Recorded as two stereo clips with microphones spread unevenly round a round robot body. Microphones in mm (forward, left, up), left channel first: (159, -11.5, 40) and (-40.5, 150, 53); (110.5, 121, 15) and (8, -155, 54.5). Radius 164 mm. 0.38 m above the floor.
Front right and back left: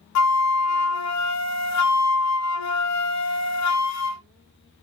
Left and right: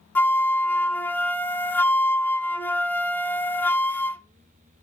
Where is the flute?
15° right, 0.6 m.